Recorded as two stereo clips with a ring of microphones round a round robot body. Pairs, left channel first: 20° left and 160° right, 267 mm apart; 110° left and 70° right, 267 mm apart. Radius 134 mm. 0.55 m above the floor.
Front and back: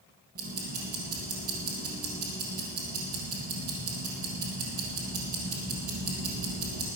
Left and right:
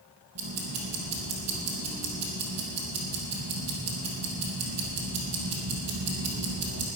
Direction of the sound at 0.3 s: 100° right.